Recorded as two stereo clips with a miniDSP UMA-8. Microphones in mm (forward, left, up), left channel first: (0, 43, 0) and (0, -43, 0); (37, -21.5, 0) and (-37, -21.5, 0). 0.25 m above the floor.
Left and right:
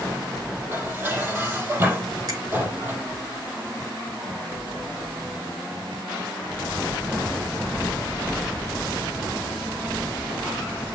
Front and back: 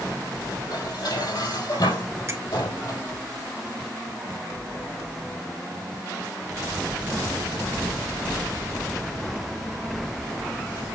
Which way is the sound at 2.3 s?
130° right.